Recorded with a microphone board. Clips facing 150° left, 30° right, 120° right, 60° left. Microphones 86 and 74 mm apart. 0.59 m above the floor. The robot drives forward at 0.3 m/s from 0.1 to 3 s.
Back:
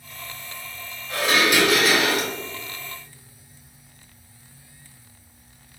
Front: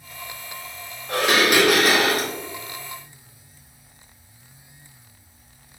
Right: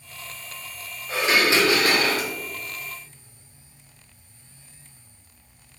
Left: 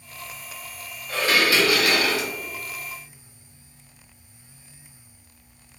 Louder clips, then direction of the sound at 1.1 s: Front 2 dB, right 1 dB; 50° right.